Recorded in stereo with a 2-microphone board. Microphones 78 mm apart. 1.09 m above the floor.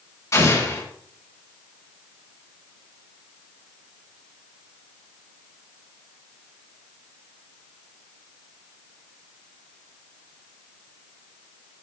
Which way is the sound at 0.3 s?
40° left (ahead or behind).